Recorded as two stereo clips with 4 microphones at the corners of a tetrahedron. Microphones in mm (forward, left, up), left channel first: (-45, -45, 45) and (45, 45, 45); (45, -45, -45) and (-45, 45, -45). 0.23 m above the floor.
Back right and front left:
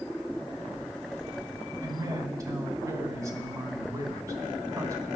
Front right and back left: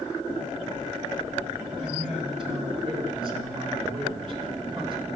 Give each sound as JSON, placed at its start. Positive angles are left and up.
{"t": 1.8, "sound": "a man speaking", "azimuth_deg": 100, "distance_m": 3.0}